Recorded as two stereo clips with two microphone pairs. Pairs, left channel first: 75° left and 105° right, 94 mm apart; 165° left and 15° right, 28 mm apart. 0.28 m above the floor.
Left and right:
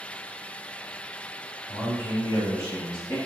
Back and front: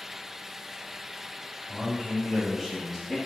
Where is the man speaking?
10° left, 1.5 m; by 3.2 s 85° left, 1.5 m.